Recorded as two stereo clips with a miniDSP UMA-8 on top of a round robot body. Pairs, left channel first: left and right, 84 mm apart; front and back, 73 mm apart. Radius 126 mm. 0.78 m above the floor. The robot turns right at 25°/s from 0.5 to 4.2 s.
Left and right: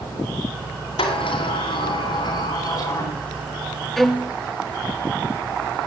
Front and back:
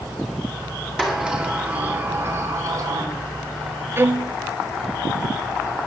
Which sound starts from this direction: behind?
A violin, at 4.0 s.